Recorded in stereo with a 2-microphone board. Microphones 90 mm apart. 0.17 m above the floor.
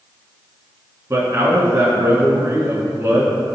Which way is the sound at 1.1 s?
35° right (ahead or behind).